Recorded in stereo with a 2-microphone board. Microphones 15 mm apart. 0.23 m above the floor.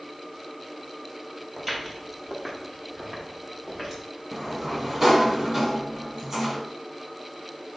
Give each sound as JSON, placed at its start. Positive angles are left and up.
{"t": 1.6, "sound": "footsteps", "side_deg": -15, "distance_m": 3.0}
{"t": 4.3, "sound": "a sliding door", "side_deg": -30, "distance_m": 1.3}